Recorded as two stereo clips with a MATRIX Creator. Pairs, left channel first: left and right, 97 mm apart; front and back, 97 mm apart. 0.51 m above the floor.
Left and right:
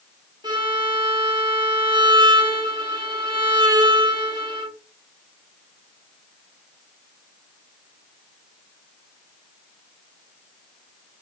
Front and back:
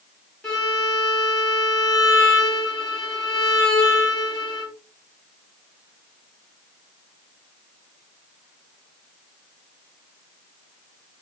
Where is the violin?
80° right, 1.2 m.